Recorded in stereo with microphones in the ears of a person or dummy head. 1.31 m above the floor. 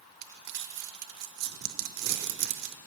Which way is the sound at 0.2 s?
50° right (ahead or behind).